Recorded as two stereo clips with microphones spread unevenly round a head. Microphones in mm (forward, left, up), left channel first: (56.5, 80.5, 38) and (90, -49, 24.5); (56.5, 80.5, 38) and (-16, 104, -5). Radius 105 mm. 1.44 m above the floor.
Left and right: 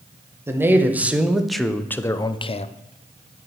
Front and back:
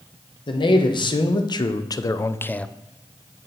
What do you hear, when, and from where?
0.5 s a man speaking: 5° right, 1.4 m; by 2.7 s 65° left, 0.6 m